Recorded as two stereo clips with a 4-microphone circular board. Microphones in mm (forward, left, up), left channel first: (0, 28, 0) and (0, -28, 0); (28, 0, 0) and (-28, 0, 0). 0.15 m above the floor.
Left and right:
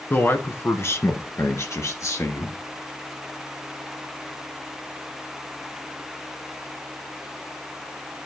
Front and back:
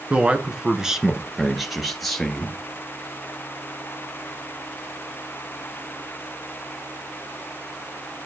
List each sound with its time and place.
0.1 s a man speaking: 120° left, 1.4 m; by 2.6 s 85° left, 2.5 m